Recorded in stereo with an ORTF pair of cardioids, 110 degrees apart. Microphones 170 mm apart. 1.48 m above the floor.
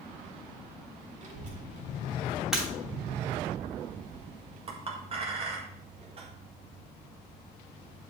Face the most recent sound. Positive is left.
turn(degrees=-35)